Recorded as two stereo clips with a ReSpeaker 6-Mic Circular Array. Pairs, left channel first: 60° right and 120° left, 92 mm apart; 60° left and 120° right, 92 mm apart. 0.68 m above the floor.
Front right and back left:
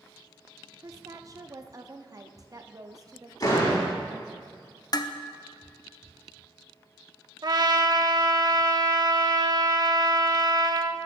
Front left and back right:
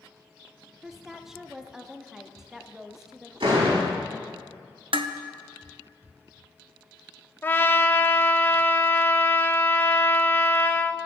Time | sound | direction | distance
0.8 | a woman speaking | 155° left | 0.7 m
3.4 | a door slam | 105° right | 4.5 m
4.9 | dishes clattering | 105° right | 0.6 m
7.4 | a trumpet | 120° left | 0.5 m